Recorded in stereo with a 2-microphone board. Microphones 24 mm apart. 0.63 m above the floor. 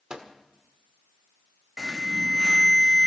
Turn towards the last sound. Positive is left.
turn(degrees=10)  # may be behind; listen again after turning